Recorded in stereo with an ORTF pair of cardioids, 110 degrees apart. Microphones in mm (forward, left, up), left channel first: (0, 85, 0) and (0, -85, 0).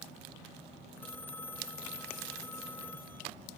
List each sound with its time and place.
1.0 s a phone ringing: 10° left